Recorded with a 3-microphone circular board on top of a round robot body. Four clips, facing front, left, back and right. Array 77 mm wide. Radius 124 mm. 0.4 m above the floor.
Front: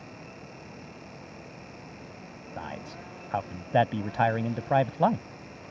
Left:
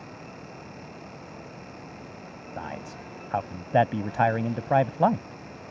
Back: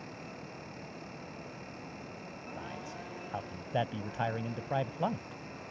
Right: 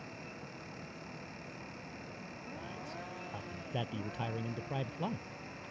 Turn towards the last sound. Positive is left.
turn(degrees=65)